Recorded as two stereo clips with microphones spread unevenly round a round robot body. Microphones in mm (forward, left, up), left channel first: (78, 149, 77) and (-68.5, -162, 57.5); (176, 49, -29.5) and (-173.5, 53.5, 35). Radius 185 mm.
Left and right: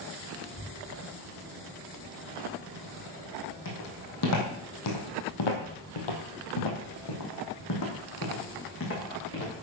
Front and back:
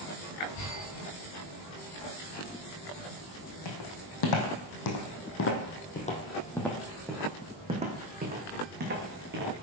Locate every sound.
3.6 s footsteps: 10° left, 2.5 m; by 9.6 s 125° left, 4 m